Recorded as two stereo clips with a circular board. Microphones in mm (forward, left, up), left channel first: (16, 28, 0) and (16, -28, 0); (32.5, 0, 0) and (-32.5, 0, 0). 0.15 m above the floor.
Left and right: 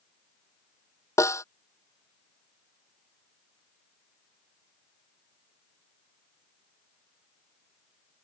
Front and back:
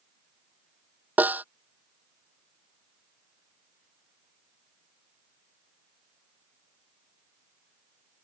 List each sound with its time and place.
1.2 s a snare drum: 115° left